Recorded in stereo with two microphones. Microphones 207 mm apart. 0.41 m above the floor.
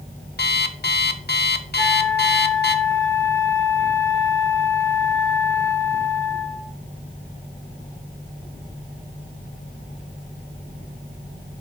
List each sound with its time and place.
0.4 s an alarm clock: 55° left (ahead or behind), 0.7 m
1.8 s a flute: 15° left (ahead or behind), 6 m